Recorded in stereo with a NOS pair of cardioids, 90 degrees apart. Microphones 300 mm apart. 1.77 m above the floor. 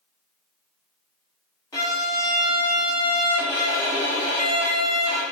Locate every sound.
1.7 s a violin: 10° left, 1.2 m